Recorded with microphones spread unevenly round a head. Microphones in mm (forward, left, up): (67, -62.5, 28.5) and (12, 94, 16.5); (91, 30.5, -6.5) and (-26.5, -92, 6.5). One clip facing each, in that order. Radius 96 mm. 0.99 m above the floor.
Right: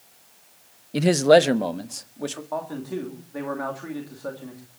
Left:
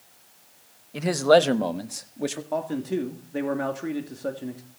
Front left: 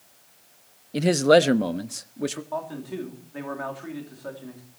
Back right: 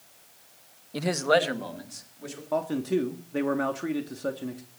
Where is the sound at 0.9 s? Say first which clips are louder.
Right 3 dB, front left 7 dB; 20° right, 0.8 m; by 2.4 s 35° left, 1.8 m.